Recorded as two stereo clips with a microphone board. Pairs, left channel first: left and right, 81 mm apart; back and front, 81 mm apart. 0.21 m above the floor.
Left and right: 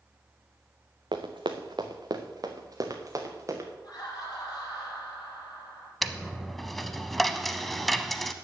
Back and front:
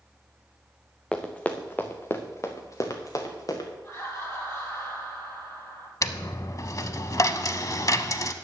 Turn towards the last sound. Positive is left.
turn(degrees=180)